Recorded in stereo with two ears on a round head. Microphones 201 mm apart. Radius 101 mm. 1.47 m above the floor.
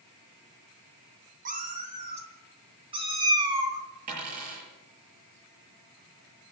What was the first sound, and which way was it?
A cat meowing, 35° right (ahead or behind).